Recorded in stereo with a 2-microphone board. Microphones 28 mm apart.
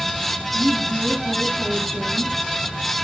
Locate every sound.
0.5 s a woman speaking: 30° right (ahead or behind), 6.5 m